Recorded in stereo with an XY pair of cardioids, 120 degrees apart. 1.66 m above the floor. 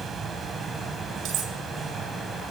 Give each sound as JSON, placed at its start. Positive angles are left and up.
{"t": 0.0, "sound": "a fan", "azimuth_deg": -40, "distance_m": 4.0}
{"t": 1.2, "sound": "cutlery clinking", "azimuth_deg": -65, "distance_m": 6.0}